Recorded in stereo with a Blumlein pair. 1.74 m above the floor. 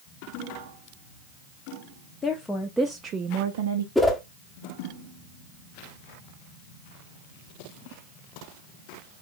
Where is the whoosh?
5° left, 0.8 m.